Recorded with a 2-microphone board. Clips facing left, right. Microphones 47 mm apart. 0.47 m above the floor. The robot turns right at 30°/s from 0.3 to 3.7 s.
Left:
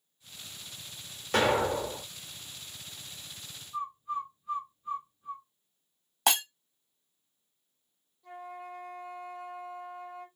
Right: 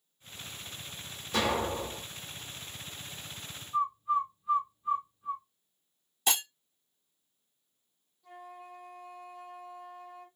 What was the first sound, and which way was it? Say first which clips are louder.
An explosion: left 4 dB; 60° left (ahead or behind).